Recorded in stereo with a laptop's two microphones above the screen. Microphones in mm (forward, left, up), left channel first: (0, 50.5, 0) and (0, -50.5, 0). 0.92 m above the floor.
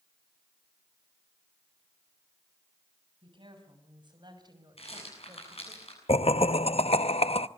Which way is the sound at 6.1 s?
70° left (ahead or behind).